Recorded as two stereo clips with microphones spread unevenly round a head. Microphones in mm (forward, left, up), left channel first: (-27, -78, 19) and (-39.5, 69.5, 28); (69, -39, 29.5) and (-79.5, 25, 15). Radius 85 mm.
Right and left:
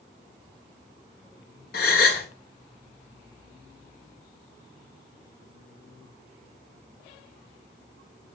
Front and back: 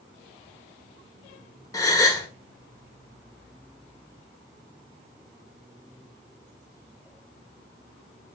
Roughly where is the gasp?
Right.